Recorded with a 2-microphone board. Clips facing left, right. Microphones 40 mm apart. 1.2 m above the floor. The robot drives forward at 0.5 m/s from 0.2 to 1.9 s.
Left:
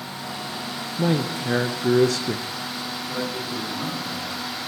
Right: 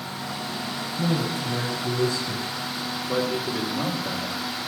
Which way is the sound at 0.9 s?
45° left (ahead or behind).